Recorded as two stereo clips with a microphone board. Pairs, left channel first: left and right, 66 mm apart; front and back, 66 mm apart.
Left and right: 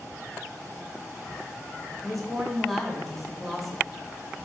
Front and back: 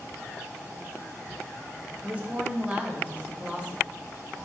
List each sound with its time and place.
2.0 s a woman speaking: 175° left, 0.9 m